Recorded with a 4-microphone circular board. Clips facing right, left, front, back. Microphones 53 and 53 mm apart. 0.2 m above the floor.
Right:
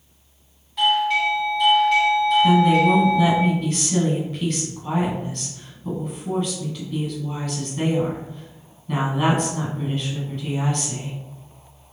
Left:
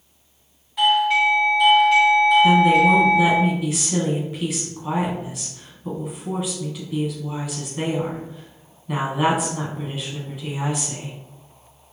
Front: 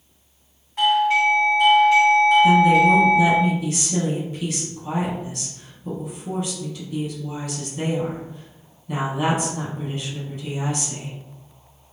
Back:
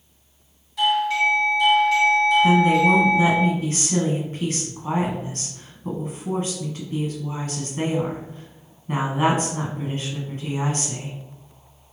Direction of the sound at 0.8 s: 5° left.